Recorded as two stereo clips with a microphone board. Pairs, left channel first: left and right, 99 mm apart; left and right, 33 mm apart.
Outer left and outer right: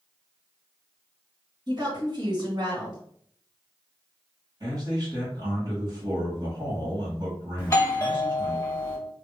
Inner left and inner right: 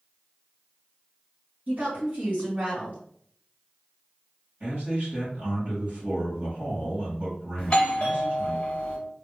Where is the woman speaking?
45° right (ahead or behind), 2.0 m.